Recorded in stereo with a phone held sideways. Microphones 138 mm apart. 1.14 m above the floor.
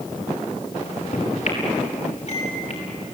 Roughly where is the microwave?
Left.